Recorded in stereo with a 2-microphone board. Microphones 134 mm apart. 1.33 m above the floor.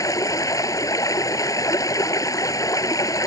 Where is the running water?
25° left (ahead or behind).